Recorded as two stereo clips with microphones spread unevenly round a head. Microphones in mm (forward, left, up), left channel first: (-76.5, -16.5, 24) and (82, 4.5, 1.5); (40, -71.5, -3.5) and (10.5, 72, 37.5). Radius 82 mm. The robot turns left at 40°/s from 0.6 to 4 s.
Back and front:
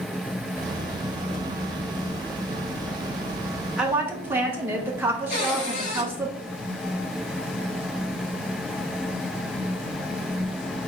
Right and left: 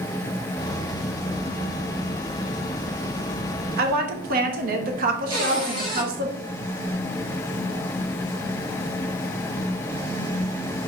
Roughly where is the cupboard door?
Behind right.